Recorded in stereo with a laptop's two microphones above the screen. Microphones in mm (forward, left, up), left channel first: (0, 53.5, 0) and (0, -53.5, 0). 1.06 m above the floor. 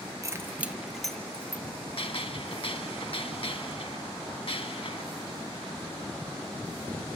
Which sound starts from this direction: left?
A gunshot, at 2.0 s.